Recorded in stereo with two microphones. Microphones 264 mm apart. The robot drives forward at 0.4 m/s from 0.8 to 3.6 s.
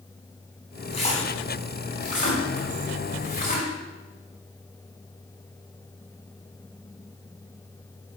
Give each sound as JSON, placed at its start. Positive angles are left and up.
{"t": 0.9, "sound": "a splash", "side_deg": 25, "distance_m": 3.5}